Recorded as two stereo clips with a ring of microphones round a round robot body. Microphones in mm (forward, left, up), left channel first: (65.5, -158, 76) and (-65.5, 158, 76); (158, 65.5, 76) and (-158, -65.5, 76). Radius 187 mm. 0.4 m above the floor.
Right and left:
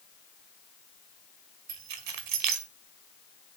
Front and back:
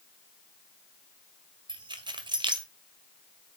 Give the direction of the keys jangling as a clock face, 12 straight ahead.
8 o'clock.